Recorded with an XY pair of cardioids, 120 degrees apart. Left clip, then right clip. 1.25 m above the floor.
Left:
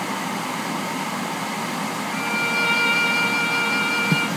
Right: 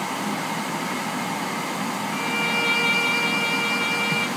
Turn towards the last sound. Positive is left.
turn(degrees=5)